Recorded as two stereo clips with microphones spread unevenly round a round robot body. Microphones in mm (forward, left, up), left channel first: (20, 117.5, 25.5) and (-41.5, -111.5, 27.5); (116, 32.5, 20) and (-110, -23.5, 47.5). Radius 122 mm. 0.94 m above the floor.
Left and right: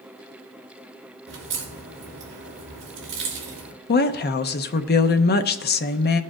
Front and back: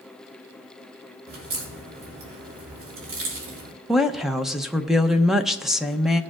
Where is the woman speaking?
100° left, 0.7 m.